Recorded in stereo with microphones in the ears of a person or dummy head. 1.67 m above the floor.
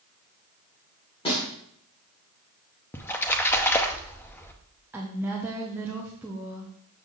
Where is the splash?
10° left (ahead or behind), 0.8 m.